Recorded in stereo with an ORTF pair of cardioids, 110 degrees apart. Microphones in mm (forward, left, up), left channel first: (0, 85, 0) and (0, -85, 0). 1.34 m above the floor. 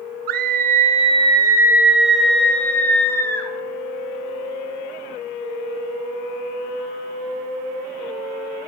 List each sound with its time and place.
0.3 s a scream: 70° right, 1.0 m; by 3.5 s 15° left, 2.5 m